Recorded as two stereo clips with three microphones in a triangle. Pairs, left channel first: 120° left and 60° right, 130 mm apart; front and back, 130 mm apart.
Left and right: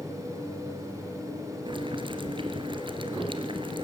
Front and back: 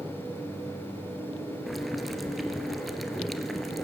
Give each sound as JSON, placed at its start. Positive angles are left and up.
{"t": 1.7, "sound": "boiling", "azimuth_deg": -90, "distance_m": 1.5}